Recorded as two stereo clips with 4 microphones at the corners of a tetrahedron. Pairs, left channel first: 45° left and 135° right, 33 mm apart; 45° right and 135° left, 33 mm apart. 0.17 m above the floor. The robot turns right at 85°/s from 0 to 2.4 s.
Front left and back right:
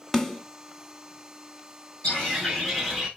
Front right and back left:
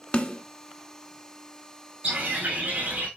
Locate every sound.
0.1 s a snare drum: 35° right, 1.4 m; by 0.4 s 10° right, 1.4 m
2.0 s a bird: 95° left, 7 m; by 3.1 s 125° left, 7 m